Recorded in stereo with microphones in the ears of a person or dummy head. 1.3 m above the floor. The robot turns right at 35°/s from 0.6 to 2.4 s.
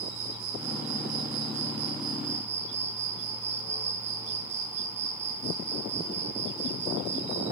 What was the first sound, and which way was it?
An insect, 105° right.